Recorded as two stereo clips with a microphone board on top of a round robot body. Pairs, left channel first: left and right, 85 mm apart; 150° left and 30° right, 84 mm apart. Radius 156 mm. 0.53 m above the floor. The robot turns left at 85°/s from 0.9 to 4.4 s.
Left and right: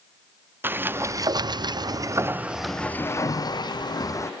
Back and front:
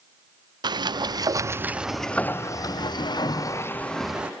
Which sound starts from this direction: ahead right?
A sliding door, at 0.6 s.